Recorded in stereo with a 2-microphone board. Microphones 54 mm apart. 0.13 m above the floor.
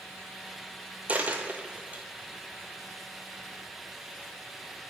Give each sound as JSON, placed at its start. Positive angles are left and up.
{"t": 1.1, "sound": "a dropped coin", "side_deg": -25, "distance_m": 0.9}